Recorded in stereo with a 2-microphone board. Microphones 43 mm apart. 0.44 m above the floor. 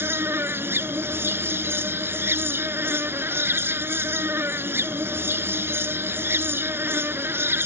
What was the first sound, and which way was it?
An insect, 65° right (ahead or behind).